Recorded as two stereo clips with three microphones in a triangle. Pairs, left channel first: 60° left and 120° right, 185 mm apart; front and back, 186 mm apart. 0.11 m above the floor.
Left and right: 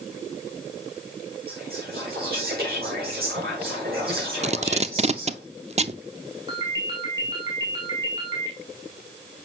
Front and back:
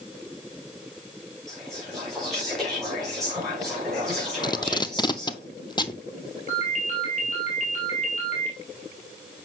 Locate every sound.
1.5 s whispering: 90° right, 5.5 m
4.4 s tape being pulled: 65° right, 0.6 m
6.5 s a ringtone: 50° right, 2.5 m